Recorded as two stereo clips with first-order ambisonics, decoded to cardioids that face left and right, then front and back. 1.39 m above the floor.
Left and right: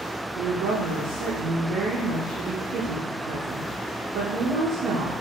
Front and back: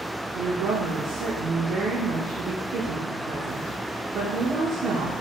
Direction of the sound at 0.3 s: 130° right.